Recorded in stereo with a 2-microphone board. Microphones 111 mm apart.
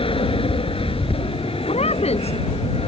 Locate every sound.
0.0 s an aircraft: 55° left (ahead or behind); by 2.9 s 60° left (ahead or behind)
1.7 s a woman speaking: 65° left (ahead or behind)